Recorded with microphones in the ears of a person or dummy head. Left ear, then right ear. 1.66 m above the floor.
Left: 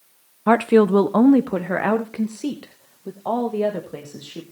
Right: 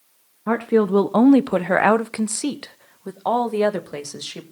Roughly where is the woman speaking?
Left.